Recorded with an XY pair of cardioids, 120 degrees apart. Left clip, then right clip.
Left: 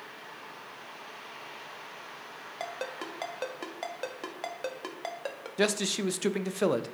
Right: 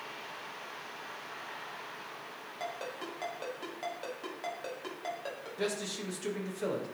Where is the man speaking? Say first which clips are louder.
Left 8 dB; 65° left, 0.5 m.